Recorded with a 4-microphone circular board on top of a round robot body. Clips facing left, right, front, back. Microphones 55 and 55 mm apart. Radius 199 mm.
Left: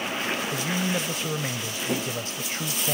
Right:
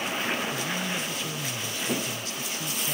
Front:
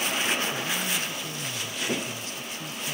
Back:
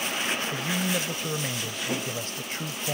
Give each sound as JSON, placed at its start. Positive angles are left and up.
{"t": 0.5, "sound": "a man speaking", "azimuth_deg": 140}